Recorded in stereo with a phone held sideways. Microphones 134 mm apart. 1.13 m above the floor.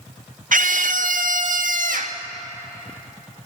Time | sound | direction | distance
0.5 | a scream | 75° right (ahead or behind) | 0.8 m